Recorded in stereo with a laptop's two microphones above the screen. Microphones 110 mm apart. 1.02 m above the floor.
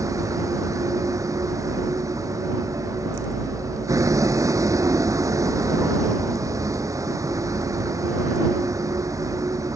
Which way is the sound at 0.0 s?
30° right (ahead or behind).